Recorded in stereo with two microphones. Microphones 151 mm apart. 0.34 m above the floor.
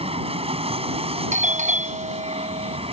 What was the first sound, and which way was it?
An aircraft, 40° right (ahead or behind).